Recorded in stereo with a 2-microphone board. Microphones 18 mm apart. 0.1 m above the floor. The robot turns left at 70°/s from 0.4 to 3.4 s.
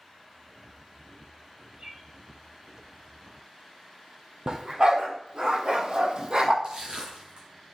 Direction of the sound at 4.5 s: 45° right (ahead or behind).